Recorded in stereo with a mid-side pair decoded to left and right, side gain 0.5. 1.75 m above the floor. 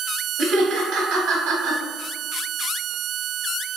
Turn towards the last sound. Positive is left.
turn(degrees=-65)